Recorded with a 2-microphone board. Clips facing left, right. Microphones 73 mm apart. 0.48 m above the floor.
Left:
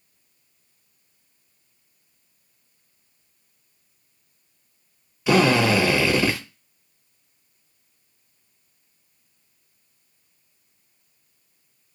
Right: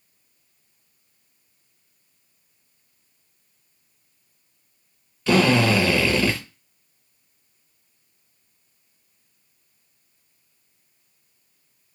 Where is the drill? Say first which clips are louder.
Even; 15° left (ahead or behind), 0.9 m.